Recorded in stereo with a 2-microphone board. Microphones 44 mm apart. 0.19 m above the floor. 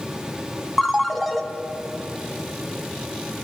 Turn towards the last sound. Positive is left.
turn(degrees=0)  # may be behind; listen again after turning